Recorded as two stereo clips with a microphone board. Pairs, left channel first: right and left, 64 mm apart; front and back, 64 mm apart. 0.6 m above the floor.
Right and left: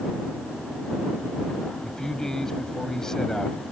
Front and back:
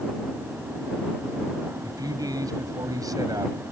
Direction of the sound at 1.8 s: 170° right.